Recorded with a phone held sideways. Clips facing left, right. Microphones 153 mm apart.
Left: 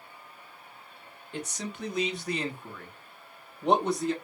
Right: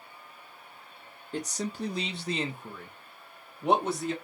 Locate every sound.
1.3 s a man speaking: 40° right (ahead or behind), 0.8 m; by 4.1 s centre (ahead or behind), 1.4 m